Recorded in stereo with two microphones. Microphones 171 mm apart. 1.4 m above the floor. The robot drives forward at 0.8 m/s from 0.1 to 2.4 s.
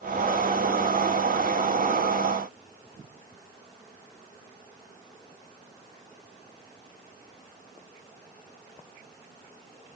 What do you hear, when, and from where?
Only background noise.